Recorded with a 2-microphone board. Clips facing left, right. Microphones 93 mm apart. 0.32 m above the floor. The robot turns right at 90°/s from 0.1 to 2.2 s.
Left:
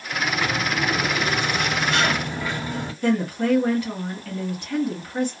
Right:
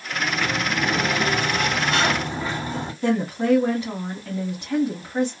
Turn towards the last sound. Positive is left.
turn(degrees=-20)  # may be behind; listen again after turning